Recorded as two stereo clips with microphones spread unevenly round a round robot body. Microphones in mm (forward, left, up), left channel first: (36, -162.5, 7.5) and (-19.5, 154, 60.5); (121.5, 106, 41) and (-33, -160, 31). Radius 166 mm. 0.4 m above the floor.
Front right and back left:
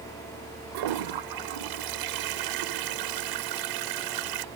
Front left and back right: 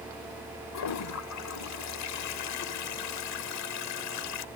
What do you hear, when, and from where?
0.7 s a toilet flushing: 90° left